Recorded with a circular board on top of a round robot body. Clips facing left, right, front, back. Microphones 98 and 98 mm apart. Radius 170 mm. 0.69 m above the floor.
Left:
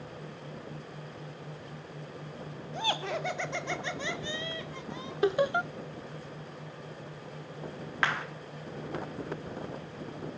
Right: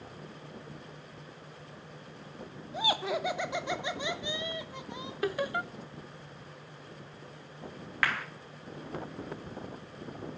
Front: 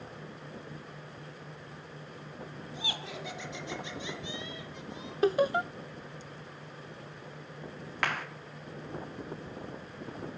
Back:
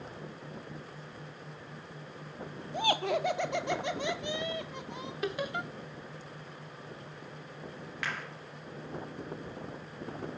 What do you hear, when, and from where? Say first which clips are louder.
2.7 s laughter: right 2 dB, back 13 dB; 175° right, 1.9 m; by 5.1 s 160° right, 3 m
5.2 s laughter: left 6 dB, front 9 dB; 35° left, 0.7 m
8.0 s a clap: left 1 dB, front 5 dB; 25° left, 1.9 m